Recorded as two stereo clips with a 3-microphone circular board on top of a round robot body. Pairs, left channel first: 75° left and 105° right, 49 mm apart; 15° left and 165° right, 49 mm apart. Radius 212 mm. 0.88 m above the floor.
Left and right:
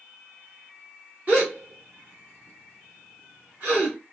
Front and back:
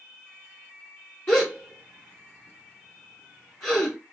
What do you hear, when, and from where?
1.3 s a gasp: 50° right, 0.6 m